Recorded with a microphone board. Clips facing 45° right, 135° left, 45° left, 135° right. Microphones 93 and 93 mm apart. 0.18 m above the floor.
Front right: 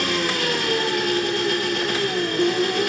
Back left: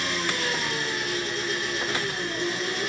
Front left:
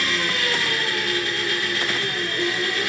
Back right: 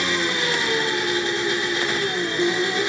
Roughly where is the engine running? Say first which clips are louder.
Front right 5 dB, back right 2 dB; ahead right.